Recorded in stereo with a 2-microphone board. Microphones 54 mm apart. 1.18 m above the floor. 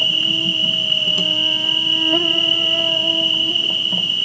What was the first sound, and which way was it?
An insect, centre (ahead or behind).